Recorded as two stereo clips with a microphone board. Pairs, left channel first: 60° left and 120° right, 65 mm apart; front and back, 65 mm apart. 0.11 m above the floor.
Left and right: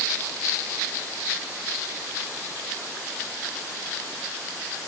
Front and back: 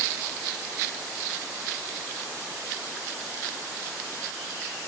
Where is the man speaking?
No man speaking in this recording.